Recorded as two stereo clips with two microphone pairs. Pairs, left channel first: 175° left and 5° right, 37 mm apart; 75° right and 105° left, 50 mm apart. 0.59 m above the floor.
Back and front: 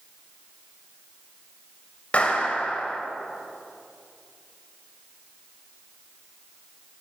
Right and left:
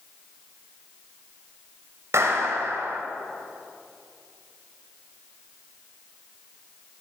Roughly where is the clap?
Behind left.